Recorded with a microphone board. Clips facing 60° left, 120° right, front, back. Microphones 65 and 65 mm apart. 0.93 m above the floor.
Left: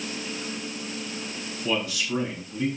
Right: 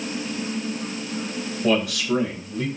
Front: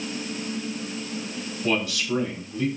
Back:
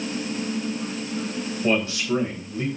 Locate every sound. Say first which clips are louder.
1.6 s a man speaking: right 6 dB, back 2 dB; 120° right, 3.5 m